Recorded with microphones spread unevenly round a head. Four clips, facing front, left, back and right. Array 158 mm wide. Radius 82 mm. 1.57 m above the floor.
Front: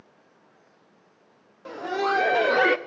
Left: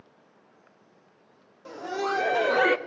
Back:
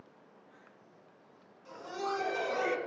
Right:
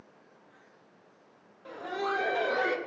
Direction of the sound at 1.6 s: 20° left.